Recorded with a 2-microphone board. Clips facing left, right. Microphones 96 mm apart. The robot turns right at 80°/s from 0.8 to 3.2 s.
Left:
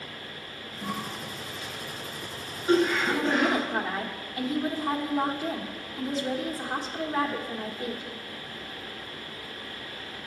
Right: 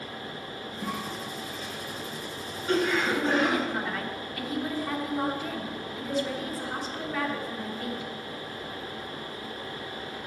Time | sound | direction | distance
0.8 | a cough | 10° left (ahead or behind) | 6 m
3.1 | a woman speaking | 30° left (ahead or behind) | 1.4 m